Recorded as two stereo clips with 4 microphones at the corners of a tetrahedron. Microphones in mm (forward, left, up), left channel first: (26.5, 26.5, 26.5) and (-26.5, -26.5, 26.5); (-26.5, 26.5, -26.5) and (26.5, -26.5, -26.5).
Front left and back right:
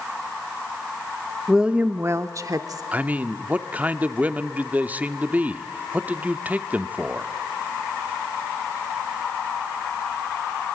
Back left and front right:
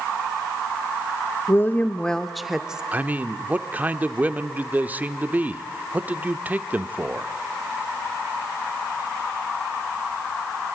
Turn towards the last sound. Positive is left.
turn(degrees=-85)